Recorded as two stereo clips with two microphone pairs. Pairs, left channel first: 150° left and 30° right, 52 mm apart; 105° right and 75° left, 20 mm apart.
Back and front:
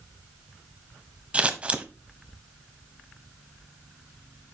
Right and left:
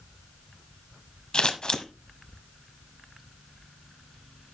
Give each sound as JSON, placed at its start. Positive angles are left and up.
{"t": 1.3, "sound": "scissors", "azimuth_deg": -85, "distance_m": 1.0}